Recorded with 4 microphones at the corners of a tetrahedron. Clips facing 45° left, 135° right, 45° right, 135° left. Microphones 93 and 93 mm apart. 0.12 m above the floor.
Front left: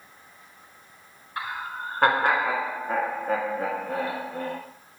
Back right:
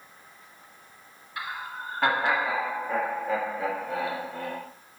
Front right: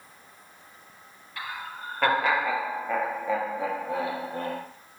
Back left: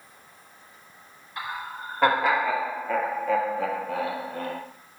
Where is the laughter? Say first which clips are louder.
Front left 3 dB, back left 3 dB; 80° left, 1.7 m; by 4.6 s 5° left, 2.5 m.